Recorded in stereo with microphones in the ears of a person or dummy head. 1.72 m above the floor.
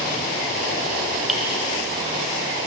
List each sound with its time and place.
1.3 s dripping: 5° left (ahead or behind), 1.7 m